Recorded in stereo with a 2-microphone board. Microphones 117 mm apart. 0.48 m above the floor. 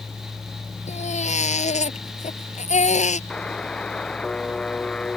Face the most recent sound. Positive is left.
turn(degrees=5)  # may be behind; listen again after turning